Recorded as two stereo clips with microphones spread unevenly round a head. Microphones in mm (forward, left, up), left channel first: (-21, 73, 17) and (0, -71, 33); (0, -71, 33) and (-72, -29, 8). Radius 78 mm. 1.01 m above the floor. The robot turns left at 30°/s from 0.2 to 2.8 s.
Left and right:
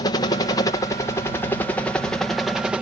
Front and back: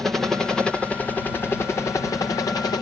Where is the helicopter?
85° left; by 2.8 s 5° left.